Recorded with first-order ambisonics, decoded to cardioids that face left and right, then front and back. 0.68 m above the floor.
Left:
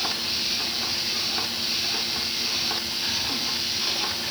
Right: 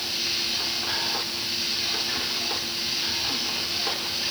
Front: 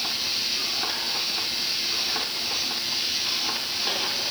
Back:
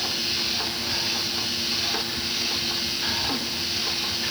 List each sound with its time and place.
Only background noise.